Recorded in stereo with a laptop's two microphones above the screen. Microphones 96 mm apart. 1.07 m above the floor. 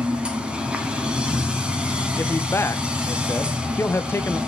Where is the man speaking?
25° left (ahead or behind), 0.9 m.